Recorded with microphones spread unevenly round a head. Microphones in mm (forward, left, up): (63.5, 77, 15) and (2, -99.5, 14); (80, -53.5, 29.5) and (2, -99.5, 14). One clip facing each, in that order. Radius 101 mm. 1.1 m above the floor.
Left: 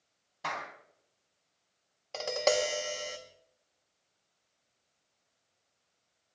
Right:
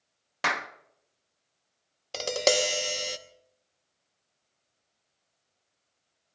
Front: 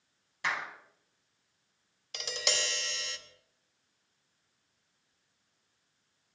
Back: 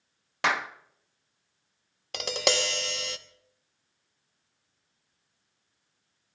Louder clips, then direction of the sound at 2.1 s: Right 3 dB, back 9 dB; 160° right.